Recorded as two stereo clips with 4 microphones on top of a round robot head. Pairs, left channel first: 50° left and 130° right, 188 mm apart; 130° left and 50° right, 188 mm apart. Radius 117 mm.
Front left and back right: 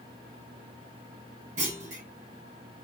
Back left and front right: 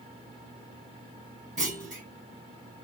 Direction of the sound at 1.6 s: 90° right.